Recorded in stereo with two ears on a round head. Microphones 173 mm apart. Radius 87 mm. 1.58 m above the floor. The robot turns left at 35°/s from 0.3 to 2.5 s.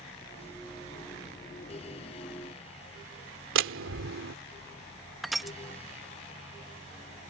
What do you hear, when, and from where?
3.5 s a door slam: 70° right (ahead or behind)
5.2 s crushing: centre (ahead or behind)